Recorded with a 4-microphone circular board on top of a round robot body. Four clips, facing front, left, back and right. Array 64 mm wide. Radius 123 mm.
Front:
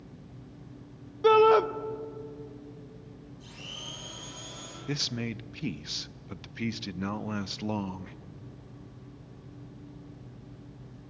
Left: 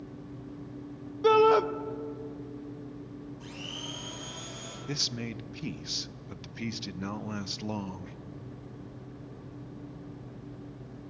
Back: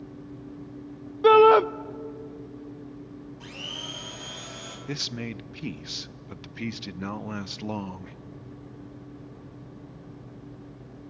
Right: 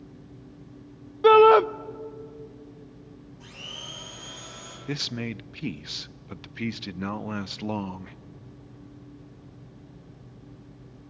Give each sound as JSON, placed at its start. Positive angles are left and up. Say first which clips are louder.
{"t": 1.2, "sound": "a shout", "louder": "right 7 dB, back 4 dB", "azimuth_deg": -125, "distance_m": 0.7}
{"t": 3.4, "sound": "a blender", "louder": "right 2 dB, back 5 dB", "azimuth_deg": 175, "distance_m": 5.5}
{"t": 4.9, "sound": "a man speaking", "louder": "right 5 dB, front 1 dB", "azimuth_deg": -95, "distance_m": 0.6}